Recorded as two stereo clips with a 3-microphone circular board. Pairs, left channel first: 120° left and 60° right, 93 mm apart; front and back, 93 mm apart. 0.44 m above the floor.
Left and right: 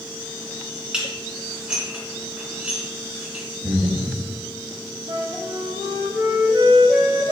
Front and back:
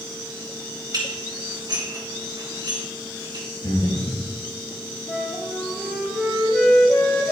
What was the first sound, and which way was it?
Dishes clattering, 140° right.